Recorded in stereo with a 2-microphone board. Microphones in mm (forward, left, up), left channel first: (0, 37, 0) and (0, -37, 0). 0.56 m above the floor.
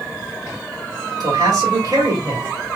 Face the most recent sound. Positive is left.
turn(degrees=-65)  # may be behind; listen again after turning